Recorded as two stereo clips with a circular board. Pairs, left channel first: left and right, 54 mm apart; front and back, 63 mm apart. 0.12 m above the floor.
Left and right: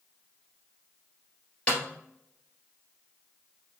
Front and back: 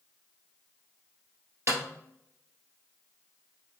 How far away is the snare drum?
About 1.6 m.